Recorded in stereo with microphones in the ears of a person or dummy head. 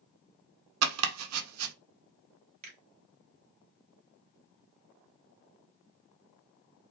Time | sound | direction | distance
0.8 | chopping | 85° right | 0.5 m
2.6 | a finger snap | 45° right (ahead or behind) | 0.9 m